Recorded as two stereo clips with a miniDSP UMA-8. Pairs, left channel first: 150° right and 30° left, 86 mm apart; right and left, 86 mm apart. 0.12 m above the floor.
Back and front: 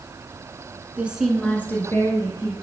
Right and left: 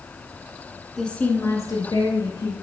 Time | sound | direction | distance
1.0 | a woman speaking | 10° right | 1.1 m